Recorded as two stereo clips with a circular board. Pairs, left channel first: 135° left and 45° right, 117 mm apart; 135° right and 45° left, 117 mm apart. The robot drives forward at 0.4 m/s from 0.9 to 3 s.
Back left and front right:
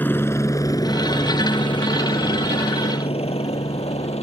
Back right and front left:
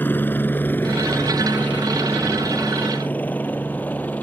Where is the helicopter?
Straight behind; by 4.2 s 150° left.